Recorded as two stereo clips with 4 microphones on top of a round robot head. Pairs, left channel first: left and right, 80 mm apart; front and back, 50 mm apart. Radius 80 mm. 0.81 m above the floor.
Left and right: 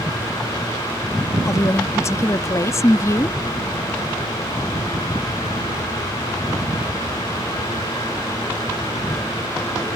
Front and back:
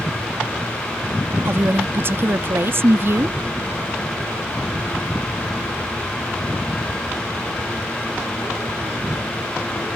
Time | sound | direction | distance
1.4 | a woman speaking | 145° left | ?